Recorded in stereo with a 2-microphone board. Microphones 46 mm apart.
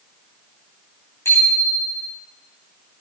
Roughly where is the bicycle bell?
Left.